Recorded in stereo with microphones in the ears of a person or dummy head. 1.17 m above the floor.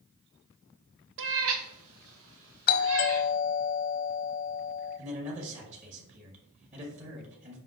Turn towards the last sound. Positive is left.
turn(degrees=-40)  # may be behind; listen again after turning